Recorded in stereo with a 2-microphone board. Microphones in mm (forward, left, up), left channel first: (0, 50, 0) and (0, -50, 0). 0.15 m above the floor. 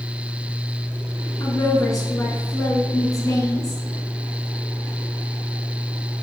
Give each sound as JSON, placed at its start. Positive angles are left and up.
{"t": 1.4, "sound": "a woman speaking", "side_deg": 35, "distance_m": 1.4}